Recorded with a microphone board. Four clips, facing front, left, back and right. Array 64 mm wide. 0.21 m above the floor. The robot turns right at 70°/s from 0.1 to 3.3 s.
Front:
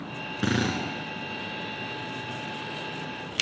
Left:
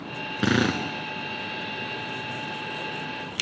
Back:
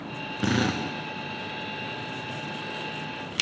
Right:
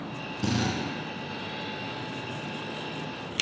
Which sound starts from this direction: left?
A drill, at 0.4 s.